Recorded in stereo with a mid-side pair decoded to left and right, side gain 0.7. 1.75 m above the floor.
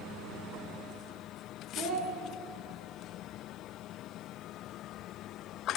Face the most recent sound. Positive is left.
turn(degrees=-65)